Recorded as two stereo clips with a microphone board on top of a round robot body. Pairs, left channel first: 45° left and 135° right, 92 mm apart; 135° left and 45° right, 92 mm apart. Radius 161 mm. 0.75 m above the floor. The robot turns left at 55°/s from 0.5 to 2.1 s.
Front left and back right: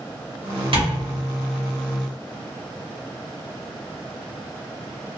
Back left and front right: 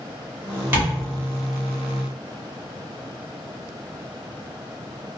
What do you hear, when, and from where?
0.7 s tapping: 115° right, 1.9 m; by 0.9 s 130° right, 1.9 m